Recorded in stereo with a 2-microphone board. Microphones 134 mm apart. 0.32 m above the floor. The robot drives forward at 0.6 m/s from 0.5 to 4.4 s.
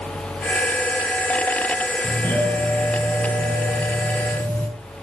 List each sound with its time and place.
2.0 s a doorbell: 10° left (ahead or behind), 6.5 m